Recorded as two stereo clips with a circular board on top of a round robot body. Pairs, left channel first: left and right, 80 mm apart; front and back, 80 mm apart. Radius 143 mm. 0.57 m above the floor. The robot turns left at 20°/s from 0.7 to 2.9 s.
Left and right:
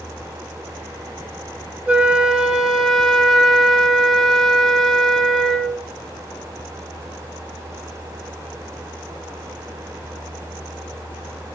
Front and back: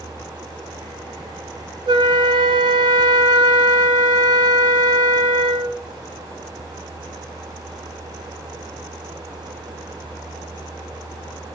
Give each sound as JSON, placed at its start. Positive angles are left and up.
{"t": 1.9, "sound": "a flute", "azimuth_deg": -165, "distance_m": 0.6}